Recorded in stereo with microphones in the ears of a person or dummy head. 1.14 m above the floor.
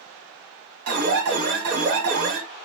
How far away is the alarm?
About 1.1 m.